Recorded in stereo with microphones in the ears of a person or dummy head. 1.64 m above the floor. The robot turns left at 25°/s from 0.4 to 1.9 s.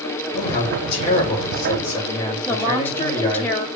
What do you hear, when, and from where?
0.3 s a man speaking: 60° left, 3.5 m; by 3.5 s 25° left, 3.5 m
2.5 s a woman speaking: 15° left (ahead or behind), 1.8 m